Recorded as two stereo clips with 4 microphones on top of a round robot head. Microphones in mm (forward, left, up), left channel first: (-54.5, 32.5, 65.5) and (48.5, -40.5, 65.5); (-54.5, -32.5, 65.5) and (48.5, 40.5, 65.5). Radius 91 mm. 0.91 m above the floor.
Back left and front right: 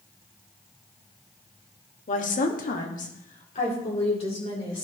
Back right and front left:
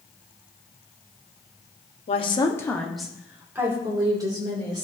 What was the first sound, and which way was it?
A woman speaking, 175° left.